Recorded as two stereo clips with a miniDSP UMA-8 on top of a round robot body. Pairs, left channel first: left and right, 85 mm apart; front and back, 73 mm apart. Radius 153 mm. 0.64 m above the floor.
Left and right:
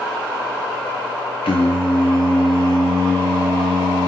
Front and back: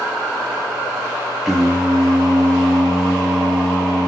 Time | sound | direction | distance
1.4 | singing | 95° left | 0.8 m